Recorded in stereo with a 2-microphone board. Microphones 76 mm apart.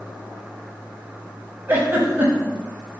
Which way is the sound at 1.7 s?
25° right (ahead or behind).